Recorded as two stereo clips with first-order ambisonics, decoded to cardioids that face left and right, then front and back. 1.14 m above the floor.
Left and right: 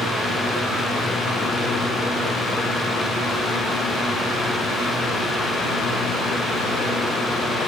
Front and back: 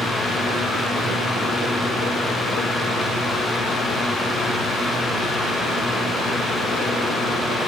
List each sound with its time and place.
Only background noise.